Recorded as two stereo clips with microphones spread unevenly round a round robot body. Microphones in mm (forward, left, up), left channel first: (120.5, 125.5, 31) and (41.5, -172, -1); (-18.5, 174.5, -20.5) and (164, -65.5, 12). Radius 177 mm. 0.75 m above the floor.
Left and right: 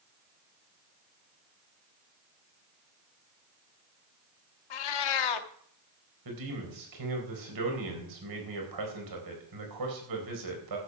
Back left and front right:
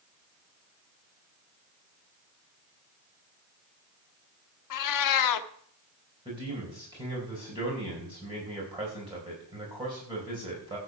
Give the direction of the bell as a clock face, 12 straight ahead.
No bell in this recording.